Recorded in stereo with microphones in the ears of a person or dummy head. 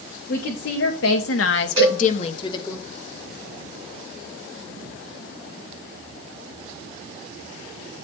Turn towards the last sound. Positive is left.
turn(degrees=-30)  # may be behind; listen again after turning